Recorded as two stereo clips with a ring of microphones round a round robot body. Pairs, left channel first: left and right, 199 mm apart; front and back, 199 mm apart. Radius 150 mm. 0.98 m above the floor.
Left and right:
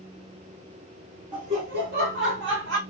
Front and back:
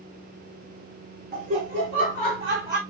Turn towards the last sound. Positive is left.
turn(degrees=-95)